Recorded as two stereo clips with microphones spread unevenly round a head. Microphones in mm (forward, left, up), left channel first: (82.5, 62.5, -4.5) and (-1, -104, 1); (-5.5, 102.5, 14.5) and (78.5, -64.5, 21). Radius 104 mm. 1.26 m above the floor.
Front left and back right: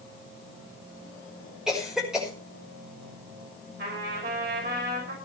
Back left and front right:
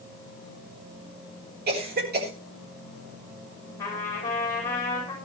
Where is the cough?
30° right, 5.5 m.